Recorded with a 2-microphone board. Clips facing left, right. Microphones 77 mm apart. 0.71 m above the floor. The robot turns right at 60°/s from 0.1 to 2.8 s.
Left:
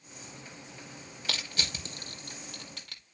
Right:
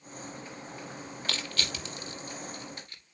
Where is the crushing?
5° left (ahead or behind), 5.5 m; by 3.0 s 85° left, 5.5 m.